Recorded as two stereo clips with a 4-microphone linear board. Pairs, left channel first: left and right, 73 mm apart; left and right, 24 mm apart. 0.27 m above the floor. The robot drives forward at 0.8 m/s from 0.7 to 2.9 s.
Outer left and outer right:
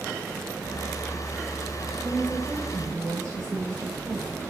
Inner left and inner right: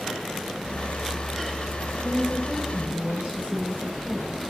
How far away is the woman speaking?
About 5 m.